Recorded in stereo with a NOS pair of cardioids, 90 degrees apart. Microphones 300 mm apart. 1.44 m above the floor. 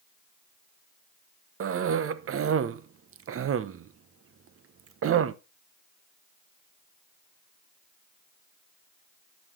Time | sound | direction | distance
1.6 | a cough | 50° right | 0.9 m